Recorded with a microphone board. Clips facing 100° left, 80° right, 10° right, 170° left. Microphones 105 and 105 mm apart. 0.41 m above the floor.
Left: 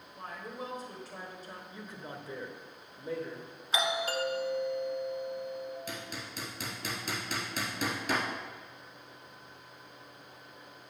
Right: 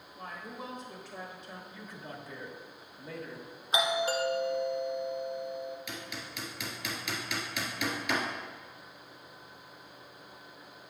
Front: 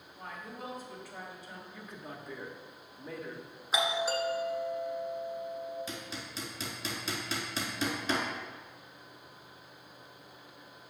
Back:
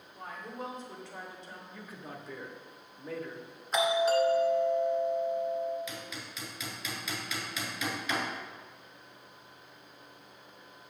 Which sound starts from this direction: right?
A doorbell, at 3.7 s.